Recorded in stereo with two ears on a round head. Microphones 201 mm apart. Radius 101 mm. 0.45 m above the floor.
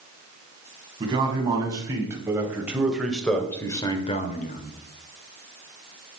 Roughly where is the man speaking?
Right.